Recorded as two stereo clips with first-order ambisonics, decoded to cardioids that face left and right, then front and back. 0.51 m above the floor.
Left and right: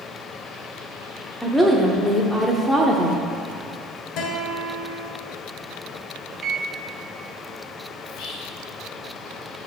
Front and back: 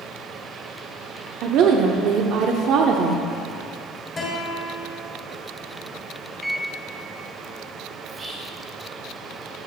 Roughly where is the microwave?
Right.